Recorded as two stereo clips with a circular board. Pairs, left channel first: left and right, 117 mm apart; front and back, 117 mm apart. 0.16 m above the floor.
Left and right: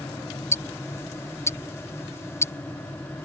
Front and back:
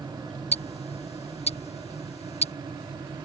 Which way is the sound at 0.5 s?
25° left.